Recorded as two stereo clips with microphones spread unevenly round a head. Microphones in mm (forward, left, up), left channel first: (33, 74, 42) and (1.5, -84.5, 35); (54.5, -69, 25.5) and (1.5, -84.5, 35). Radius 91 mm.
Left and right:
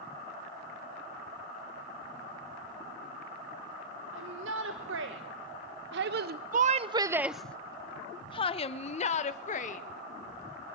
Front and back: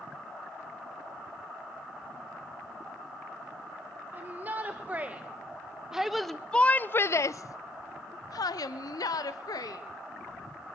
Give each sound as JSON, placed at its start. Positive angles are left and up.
{"t": 4.1, "sound": "a shout", "azimuth_deg": -110, "distance_m": 1.7}